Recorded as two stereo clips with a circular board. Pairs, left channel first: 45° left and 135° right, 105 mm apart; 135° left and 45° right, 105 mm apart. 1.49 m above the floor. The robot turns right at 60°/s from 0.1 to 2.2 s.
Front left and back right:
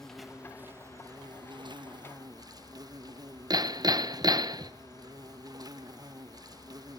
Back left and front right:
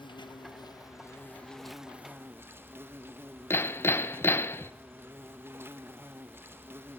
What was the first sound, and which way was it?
An insect, 130° left.